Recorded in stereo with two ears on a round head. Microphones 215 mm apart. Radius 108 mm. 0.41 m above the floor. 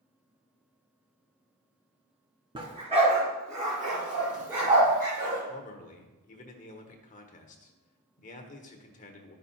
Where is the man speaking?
35° left (ahead or behind), 0.9 m.